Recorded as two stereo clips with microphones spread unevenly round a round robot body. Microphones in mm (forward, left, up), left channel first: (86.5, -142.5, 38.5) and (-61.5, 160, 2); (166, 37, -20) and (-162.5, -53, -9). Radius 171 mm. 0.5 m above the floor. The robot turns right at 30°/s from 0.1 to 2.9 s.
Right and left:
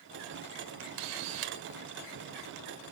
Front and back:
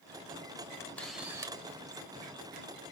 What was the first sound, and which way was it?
A camera shutter, 95° left.